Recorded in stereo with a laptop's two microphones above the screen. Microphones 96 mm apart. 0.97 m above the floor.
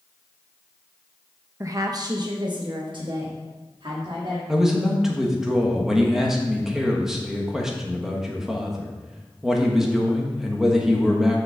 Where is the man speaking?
5° right (ahead or behind), 1.4 m.